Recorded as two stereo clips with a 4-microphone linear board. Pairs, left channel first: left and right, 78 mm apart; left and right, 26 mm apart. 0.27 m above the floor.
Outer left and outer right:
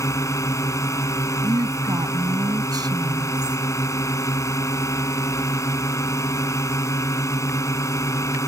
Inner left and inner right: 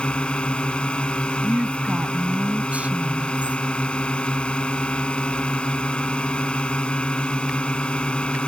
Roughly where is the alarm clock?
No alarm clock in this recording.